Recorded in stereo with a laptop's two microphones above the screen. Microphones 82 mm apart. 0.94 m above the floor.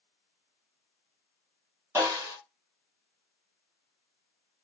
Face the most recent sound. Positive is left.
turn(degrees=-30)  # may be behind; listen again after turning